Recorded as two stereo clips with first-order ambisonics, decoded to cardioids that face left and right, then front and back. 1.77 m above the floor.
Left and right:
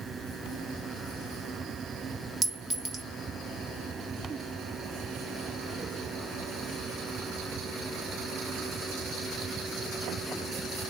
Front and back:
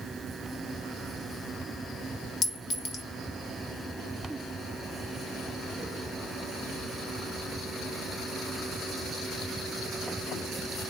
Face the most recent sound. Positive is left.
turn(degrees=-40)